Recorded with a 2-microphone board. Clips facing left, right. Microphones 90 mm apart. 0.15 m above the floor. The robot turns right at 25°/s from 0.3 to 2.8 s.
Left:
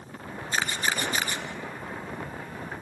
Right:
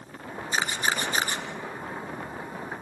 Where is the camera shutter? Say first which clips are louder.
Right 1 dB; 15° right (ahead or behind), 2 m; by 1.4 s 35° right (ahead or behind), 2 m.